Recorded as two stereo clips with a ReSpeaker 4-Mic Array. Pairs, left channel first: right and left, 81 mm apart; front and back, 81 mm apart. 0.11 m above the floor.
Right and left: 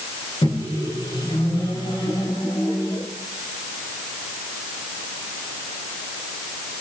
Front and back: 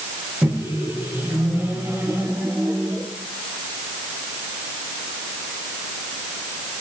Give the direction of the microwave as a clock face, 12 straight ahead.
4 o'clock.